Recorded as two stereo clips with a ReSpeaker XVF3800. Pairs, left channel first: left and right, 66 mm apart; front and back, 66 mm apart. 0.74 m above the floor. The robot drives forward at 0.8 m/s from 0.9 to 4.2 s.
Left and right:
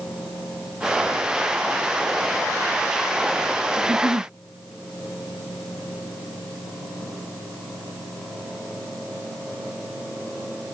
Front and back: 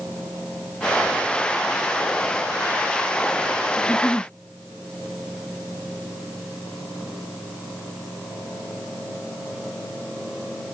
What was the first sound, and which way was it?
A giggle, 85° right.